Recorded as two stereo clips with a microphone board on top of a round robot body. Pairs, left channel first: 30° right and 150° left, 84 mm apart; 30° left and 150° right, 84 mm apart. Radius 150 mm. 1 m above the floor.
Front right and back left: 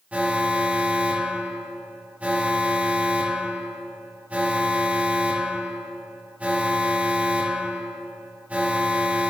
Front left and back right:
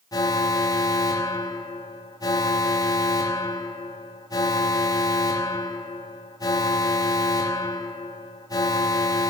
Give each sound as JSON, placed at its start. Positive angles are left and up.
{"t": 0.1, "sound": "an alarm", "azimuth_deg": 75, "distance_m": 2.5}